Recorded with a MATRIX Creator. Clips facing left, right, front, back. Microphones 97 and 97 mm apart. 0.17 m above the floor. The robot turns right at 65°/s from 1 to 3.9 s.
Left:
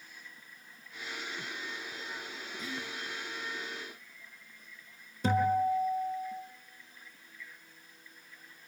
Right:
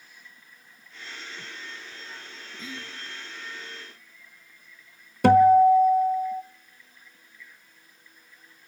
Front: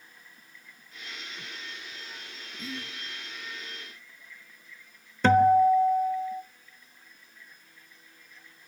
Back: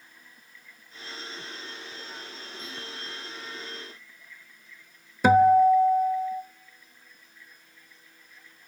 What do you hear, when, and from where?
2.6 s whispering: 40° right, 1.5 m; by 2.9 s 20° right, 1.5 m
5.2 s a guitar: 100° right, 0.9 m